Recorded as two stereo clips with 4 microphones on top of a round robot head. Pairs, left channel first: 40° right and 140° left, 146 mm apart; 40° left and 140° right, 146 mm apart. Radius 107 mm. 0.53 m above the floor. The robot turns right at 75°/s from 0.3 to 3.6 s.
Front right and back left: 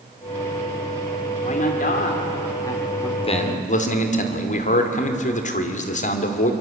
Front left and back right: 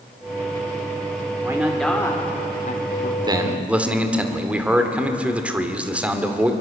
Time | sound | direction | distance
1.4 | a man speaking | 75° right | 2 m
3.2 | a man speaking | 90° right | 2.5 m